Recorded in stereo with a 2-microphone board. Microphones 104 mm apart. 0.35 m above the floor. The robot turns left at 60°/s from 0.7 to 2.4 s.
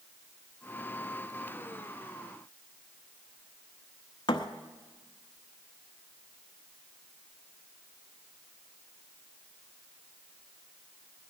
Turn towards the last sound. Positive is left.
turn(degrees=50)  # may be behind; listen again after turning